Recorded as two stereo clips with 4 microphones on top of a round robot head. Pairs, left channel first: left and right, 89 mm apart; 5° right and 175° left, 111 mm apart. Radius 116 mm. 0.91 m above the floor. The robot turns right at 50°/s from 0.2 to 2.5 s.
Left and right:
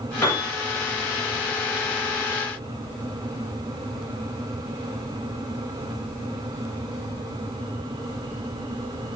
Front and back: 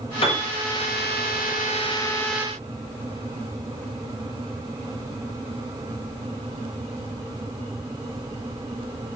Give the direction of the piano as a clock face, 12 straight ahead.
11 o'clock.